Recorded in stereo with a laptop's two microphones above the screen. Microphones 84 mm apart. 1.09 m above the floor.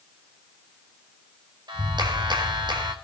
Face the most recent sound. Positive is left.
turn(degrees=-65)  # may be behind; listen again after turning